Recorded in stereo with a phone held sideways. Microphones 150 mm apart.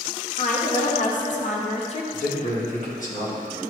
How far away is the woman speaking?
About 1.8 m.